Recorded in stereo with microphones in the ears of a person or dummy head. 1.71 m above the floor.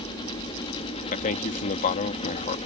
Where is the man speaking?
45° left (ahead or behind).